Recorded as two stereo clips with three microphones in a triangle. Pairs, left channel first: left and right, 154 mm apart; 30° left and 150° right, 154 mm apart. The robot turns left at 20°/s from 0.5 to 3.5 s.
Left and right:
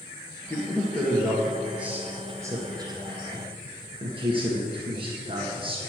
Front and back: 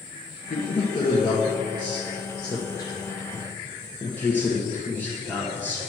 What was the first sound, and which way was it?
A man speaking, 15° left.